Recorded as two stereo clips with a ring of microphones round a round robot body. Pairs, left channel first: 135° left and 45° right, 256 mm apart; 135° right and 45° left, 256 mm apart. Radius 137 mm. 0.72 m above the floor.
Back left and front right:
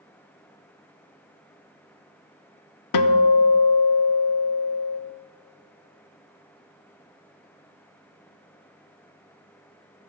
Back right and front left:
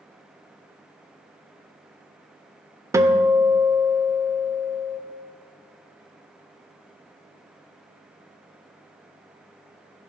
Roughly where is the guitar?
Behind left.